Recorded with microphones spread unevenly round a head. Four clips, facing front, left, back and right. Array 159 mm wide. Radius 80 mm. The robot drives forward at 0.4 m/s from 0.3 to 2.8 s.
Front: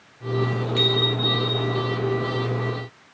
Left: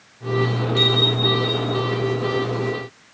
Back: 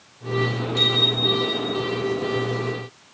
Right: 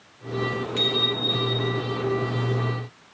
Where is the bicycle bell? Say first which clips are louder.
Left 6 dB, front 3 dB; 5° right, 4.5 m; by 1.8 s 10° right, 4 m.